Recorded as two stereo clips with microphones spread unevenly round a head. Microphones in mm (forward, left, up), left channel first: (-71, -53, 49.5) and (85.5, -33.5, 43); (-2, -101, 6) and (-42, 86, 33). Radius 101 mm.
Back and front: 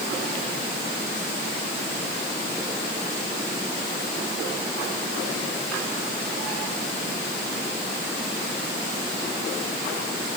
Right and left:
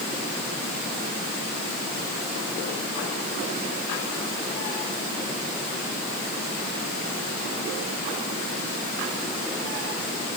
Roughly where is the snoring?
I don't hear snoring.